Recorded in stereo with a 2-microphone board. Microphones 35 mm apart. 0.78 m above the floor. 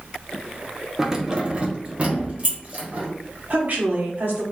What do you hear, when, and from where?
1.0 s keys jangling: 10° right (ahead or behind), 0.6 m; by 3.1 s 45° right (ahead or behind), 1.9 m
3.5 s a woman speaking: 55° right (ahead or behind), 1.6 m